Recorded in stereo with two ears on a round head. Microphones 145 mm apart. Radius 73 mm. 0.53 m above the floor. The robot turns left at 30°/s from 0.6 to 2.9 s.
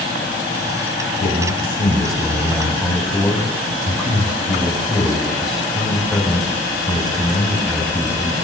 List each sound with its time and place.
1.2 s a man speaking: 55° left, 3.5 m; by 8.3 s straight ahead, 3.5 m